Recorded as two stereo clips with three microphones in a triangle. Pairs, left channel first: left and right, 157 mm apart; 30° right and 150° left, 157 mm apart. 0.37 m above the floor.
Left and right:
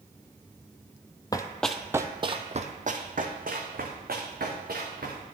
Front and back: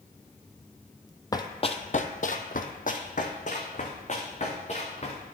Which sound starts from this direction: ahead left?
Running footsteps, at 1.3 s.